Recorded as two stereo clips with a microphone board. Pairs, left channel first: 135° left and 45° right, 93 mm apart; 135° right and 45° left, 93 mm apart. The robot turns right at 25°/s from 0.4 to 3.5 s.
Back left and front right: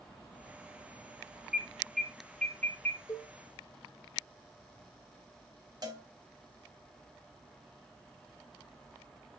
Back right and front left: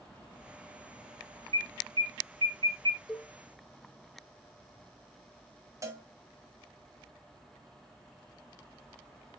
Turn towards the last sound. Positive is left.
turn(degrees=-5)